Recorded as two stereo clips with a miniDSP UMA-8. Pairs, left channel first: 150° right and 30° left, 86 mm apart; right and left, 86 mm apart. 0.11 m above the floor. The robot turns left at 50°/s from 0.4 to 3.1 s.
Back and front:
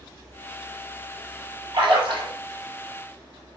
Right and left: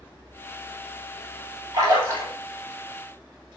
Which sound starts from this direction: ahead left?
A splash, at 1.7 s.